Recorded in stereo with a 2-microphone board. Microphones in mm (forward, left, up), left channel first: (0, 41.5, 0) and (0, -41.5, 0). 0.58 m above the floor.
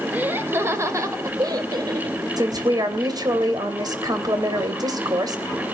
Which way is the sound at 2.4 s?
50° right (ahead or behind).